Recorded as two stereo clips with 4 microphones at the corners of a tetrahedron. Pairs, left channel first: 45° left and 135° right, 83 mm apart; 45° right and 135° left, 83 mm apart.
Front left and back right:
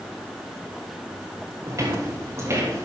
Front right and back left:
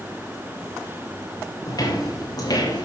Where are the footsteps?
85° right, 6 m; by 2.9 s 80° right, 5.5 m.